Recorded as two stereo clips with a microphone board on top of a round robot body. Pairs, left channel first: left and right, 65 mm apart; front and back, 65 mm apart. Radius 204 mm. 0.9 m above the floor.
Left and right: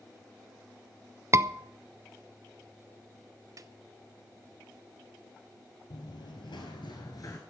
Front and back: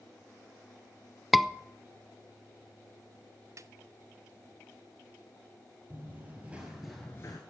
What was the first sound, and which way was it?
A scream, 95° right.